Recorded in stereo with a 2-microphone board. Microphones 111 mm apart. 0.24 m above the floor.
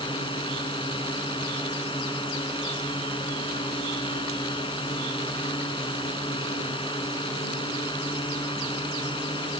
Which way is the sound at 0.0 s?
50° left (ahead or behind).